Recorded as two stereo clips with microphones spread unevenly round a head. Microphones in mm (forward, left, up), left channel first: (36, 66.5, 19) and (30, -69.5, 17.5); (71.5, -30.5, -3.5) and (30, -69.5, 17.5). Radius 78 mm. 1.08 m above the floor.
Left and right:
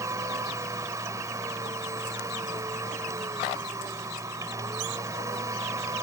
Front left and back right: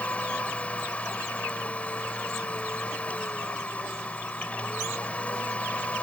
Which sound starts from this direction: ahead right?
A machine running, at 0.0 s.